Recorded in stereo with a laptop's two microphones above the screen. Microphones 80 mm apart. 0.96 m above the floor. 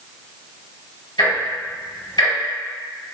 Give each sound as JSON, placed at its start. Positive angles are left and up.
{"t": 1.2, "sound": "ticking", "side_deg": 70, "distance_m": 1.9}